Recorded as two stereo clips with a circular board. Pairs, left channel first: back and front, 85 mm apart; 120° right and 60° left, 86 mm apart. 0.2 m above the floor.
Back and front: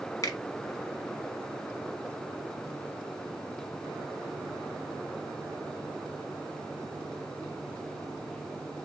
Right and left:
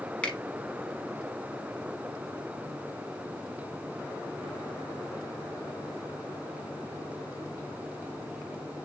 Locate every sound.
0.2 s a finger snap: 165° left, 1.2 m